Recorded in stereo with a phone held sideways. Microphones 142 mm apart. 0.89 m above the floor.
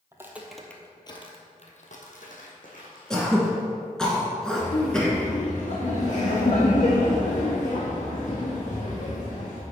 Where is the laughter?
60° left (ahead or behind), 1.3 m.